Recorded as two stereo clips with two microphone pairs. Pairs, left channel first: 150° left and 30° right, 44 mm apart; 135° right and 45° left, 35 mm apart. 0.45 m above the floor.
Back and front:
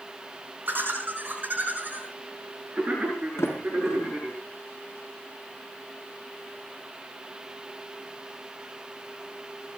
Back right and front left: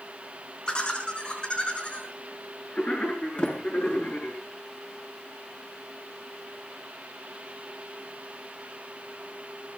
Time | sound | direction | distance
0.7 | laughter | 70° right | 5 m
3.4 | a sliding door | 170° left | 4 m